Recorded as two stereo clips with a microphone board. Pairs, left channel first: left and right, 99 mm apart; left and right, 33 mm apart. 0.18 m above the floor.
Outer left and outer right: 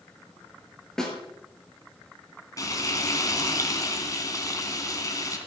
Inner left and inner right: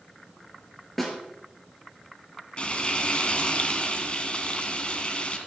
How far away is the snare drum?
About 3.5 m.